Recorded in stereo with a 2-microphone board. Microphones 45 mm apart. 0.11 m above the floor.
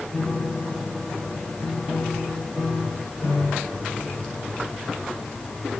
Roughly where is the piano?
Left.